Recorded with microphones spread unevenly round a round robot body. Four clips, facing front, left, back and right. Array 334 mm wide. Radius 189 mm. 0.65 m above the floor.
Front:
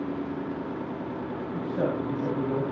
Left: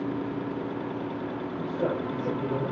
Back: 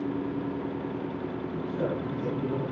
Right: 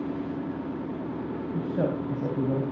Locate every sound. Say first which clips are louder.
1.5 s a man speaking: right 1 dB, front 4 dB; 75° right, 4.5 m